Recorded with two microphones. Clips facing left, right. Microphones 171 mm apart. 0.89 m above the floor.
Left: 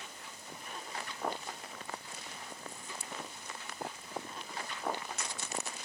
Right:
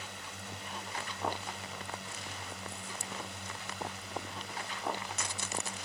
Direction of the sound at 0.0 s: 75° right (ahead or behind).